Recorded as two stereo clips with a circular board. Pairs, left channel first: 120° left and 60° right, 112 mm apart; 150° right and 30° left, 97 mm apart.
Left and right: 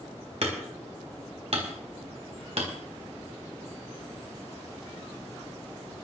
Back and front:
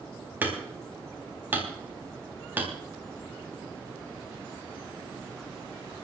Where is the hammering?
40° right, 4 m.